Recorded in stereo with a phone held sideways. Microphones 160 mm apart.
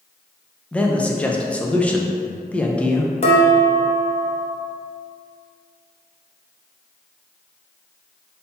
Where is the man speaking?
5° left (ahead or behind), 0.6 m.